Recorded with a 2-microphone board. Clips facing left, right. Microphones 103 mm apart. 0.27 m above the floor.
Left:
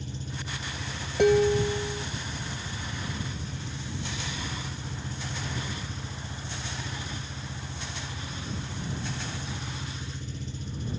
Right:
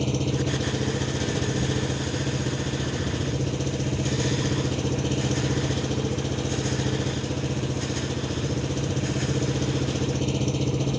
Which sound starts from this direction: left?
Dishes clattering, at 1.2 s.